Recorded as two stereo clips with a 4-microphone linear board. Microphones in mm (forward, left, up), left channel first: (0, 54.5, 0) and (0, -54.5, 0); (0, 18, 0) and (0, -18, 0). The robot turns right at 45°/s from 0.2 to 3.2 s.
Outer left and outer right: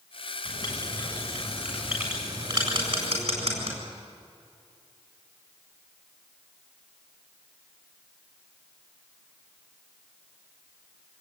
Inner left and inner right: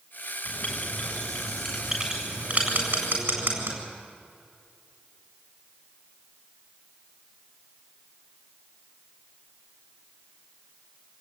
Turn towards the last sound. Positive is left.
turn(degrees=-80)